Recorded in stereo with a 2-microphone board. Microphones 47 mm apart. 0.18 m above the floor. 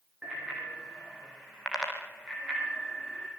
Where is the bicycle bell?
15° right (ahead or behind), 7 m.